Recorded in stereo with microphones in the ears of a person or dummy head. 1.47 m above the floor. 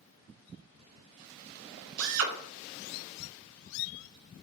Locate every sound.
2.0 s a drill: 70° right (ahead or behind), 0.6 m